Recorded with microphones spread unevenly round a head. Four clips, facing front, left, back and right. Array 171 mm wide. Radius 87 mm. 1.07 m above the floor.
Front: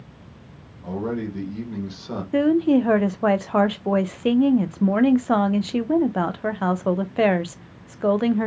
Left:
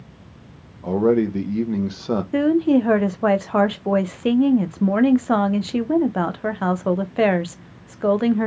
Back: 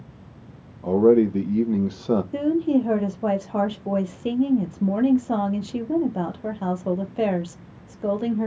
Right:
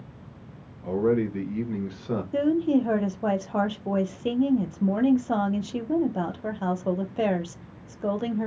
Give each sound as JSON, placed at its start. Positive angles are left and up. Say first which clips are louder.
{"t": 0.8, "sound": "a man speaking", "louder": "left 6 dB, back 11 dB", "azimuth_deg": 140, "distance_m": 1.0}
{"t": 2.3, "sound": "a woman speaking", "louder": "left 5 dB, front 7 dB", "azimuth_deg": 55, "distance_m": 0.6}